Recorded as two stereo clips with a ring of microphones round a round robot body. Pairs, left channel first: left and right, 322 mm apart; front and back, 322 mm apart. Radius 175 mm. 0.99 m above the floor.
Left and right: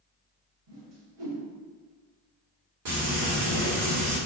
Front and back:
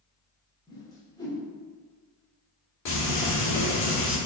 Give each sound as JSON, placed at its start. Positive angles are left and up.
{"t": 0.7, "sound": "a whoosh", "azimuth_deg": -80, "distance_m": 2.5}
{"t": 2.9, "sound": "frying", "azimuth_deg": -40, "distance_m": 2.5}